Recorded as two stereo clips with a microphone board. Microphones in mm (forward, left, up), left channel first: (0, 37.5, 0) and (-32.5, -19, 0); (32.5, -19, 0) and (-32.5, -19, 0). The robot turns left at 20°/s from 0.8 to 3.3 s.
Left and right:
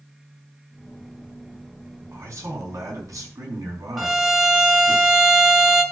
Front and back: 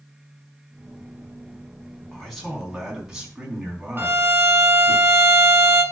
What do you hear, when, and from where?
2.1 s a man speaking: 80° right, 4.5 m; by 5.0 s 105° right, 4.5 m
4.0 s a violin: 150° left, 1.5 m